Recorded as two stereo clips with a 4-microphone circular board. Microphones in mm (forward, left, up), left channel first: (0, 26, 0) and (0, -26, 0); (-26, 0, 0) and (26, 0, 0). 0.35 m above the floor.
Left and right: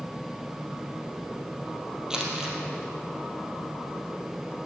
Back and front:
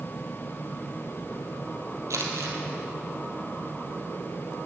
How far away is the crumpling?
About 2 m.